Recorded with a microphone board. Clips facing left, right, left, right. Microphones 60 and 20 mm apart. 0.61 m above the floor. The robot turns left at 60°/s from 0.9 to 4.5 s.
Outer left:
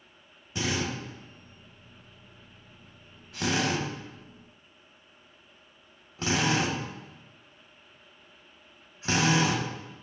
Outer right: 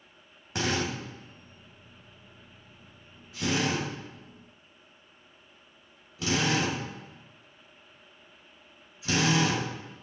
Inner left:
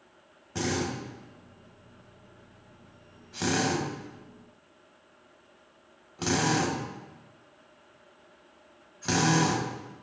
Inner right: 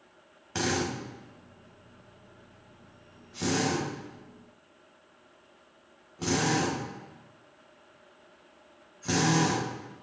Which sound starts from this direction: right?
A drill, at 0.6 s.